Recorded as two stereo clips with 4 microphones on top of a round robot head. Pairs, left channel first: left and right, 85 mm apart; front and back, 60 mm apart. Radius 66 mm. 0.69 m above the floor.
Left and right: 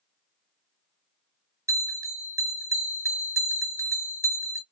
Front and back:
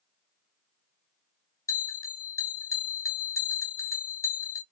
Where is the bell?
35° right, 2.0 m.